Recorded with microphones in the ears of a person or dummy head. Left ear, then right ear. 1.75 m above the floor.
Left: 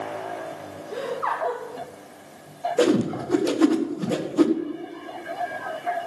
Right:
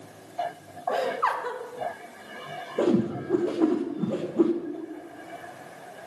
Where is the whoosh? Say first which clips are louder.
Left 3 dB; 85° left, 1.7 m.